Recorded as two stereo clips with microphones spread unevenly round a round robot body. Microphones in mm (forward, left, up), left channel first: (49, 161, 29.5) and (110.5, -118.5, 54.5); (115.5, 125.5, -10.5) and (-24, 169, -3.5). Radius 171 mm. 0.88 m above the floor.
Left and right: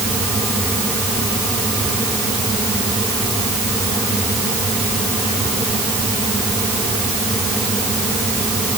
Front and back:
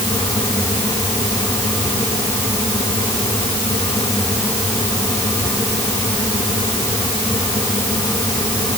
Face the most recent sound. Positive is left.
No sound to turn to.